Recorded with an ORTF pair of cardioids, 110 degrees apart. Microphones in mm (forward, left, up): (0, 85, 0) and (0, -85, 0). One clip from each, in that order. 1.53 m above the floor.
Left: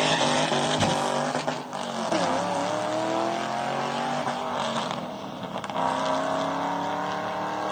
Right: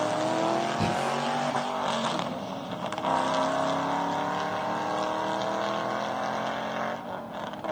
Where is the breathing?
30° left, 7 m.